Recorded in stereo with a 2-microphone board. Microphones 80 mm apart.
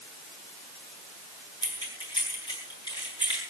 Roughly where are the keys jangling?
Left.